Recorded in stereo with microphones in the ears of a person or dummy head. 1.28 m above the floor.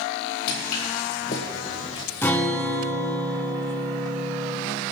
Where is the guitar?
15° left (ahead or behind), 1.5 m.